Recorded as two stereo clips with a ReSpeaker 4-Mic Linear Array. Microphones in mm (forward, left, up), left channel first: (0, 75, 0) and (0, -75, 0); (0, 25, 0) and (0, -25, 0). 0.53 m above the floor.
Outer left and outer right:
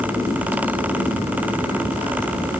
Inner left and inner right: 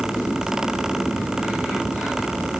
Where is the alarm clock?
I don't hear an alarm clock.